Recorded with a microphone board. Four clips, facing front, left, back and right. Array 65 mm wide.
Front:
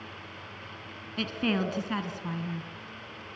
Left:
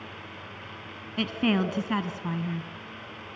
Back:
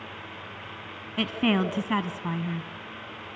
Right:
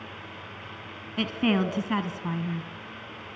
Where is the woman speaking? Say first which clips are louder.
Right 1 dB, back 4 dB; 175° right, 1.1 m.